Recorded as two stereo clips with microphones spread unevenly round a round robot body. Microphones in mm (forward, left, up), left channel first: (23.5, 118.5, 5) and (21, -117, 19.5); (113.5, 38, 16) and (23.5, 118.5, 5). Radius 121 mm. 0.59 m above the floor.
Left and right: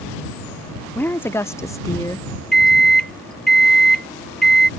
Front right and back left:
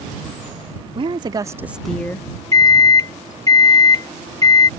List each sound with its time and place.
0.9 s a woman speaking: 170° left; by 2.3 s 20° left
2.5 s a microwave: 5° left